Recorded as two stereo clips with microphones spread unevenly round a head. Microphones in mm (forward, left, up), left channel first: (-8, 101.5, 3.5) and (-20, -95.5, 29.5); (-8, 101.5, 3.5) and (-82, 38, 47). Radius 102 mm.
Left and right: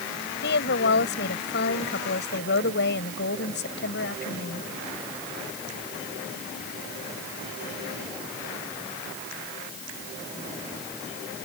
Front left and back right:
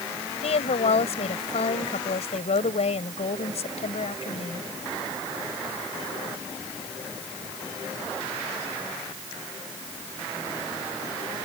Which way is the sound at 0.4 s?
45° left.